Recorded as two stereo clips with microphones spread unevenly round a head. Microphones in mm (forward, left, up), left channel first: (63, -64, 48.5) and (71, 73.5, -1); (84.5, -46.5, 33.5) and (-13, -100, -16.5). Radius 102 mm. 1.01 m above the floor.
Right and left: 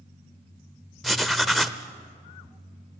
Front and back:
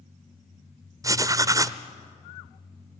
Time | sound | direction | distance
1.0 | writing | 70° right | 0.7 m